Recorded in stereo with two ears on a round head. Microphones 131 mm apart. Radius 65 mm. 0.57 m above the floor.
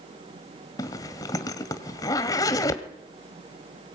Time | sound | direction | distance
0.8 | a zipper | 25° left (ahead or behind) | 1.8 m